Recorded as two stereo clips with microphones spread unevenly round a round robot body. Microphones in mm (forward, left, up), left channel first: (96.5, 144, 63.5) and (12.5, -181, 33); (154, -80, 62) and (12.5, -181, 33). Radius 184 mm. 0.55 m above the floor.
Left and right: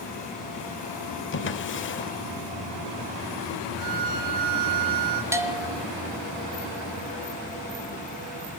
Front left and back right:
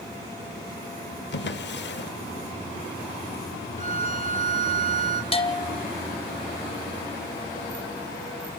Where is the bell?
20° right, 3 m.